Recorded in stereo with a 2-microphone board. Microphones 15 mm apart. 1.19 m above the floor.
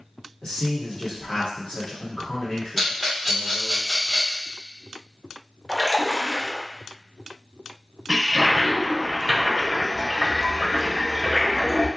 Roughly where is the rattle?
Centre.